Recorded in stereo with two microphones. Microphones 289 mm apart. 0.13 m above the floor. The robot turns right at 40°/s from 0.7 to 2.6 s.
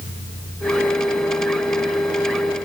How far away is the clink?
No clink in this recording.